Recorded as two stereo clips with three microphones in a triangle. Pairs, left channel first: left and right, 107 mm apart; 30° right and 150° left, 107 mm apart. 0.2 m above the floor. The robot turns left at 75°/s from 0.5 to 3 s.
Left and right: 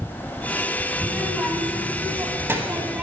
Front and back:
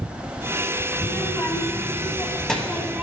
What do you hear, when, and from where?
1.0 s a child speaking: 10° left, 1.1 m; by 3.0 s 145° right, 1.1 m